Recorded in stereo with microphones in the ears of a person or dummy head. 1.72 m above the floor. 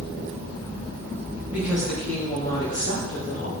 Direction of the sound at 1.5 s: 15° right (ahead or behind).